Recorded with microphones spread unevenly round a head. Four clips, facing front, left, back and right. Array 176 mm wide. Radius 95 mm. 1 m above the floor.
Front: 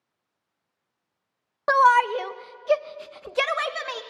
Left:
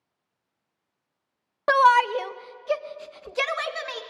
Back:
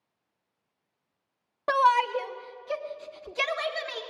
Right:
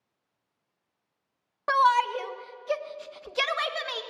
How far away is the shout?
About 1.0 m.